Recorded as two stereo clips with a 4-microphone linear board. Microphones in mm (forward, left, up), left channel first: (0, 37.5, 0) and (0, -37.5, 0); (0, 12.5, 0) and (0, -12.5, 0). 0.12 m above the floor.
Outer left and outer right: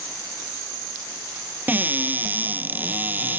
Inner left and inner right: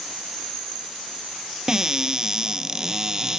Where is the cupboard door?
25° right (ahead or behind).